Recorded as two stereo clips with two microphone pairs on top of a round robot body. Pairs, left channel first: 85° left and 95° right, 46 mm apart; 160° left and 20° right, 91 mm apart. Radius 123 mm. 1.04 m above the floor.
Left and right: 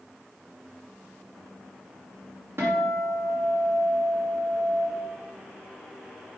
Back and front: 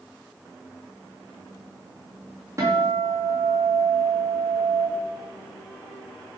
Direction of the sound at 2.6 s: 70° right.